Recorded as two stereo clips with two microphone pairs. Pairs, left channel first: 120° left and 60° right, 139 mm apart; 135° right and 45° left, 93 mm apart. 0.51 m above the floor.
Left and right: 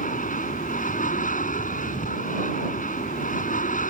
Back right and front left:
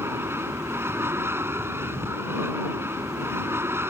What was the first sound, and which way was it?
An aircraft, 105° left.